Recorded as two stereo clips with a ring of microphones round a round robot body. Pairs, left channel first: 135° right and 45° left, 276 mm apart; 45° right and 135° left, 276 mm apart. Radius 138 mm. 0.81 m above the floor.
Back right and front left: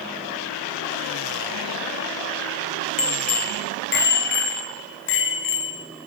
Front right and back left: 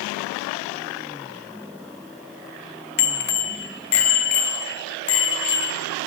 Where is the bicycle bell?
70° right, 2 m; by 5.8 s 90° right, 5 m.